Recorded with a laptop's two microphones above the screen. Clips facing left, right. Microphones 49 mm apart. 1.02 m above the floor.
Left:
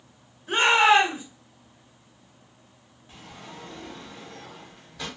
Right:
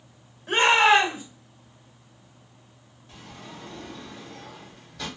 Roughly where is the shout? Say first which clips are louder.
Even; right.